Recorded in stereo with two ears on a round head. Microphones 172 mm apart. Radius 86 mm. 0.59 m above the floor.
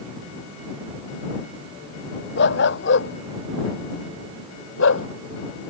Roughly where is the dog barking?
Left.